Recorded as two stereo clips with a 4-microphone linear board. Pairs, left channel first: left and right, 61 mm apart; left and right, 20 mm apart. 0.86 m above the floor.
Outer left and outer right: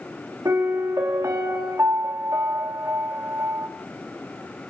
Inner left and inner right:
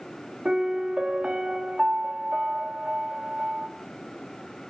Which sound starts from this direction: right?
A piano, at 0.5 s.